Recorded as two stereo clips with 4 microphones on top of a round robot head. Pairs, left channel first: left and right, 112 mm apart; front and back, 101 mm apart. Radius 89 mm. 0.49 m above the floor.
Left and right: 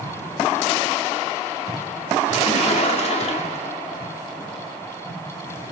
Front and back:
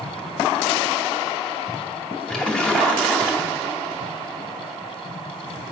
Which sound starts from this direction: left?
A splash, at 2.3 s.